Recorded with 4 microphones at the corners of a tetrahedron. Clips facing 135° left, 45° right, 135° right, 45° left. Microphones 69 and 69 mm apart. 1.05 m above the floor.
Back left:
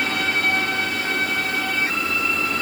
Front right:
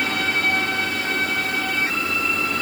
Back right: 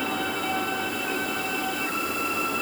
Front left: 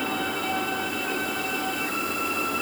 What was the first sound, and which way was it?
Only background noise.